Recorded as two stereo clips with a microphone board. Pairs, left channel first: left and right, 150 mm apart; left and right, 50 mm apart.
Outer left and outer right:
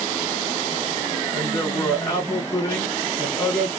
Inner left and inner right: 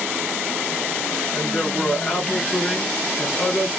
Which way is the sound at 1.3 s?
20° left (ahead or behind).